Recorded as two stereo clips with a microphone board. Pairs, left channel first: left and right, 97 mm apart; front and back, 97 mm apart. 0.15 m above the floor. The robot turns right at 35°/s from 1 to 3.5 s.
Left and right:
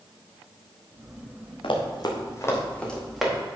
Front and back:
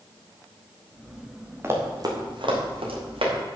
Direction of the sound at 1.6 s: 115° left.